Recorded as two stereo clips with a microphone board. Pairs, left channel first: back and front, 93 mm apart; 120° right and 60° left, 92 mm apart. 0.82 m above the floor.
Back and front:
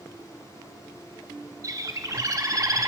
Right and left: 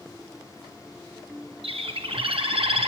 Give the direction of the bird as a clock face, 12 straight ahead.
10 o'clock.